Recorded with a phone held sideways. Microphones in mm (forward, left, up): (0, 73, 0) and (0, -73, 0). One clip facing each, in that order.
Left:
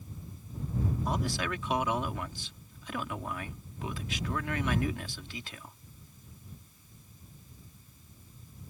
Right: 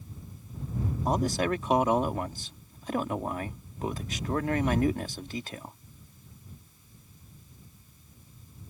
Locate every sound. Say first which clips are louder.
1.1 s a man speaking: right 6 dB; 40° right (ahead or behind)